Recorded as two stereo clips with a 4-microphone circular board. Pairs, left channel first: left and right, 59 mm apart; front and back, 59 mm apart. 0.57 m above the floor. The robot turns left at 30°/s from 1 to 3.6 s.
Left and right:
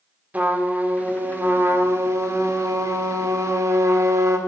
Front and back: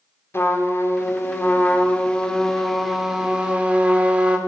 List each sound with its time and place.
0.3 s a trumpet: 30° right, 1.2 m; by 4.4 s 110° right, 1.2 m